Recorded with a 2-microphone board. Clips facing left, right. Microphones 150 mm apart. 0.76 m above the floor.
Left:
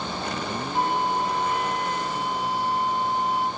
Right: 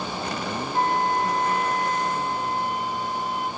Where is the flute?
5° left (ahead or behind), 3 m.